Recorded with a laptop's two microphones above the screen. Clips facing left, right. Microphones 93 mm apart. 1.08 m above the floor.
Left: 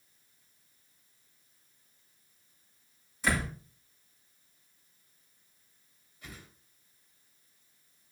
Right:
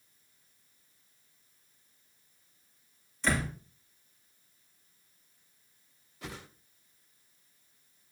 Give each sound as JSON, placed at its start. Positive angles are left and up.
{"t": 3.2, "sound": "a door slam", "side_deg": 10, "distance_m": 5.5}
{"t": 6.2, "sound": "a whoosh", "side_deg": -80, "distance_m": 0.9}